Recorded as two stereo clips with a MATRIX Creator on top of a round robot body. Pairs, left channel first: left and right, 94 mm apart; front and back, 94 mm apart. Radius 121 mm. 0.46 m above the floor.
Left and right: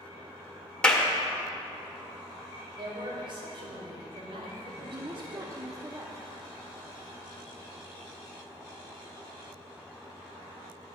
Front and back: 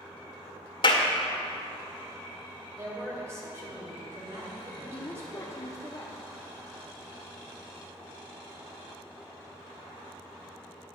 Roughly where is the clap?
Ahead.